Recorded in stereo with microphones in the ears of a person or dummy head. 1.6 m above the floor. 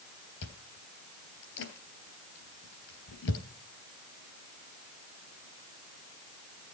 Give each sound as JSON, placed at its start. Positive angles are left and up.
{"t": 0.4, "sound": "chewing", "side_deg": 65, "distance_m": 3.0}